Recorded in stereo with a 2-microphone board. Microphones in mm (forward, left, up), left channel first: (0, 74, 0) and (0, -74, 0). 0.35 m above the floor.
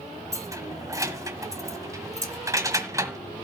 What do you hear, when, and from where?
0.3 s keys jangling: 20° right (ahead or behind), 1.2 m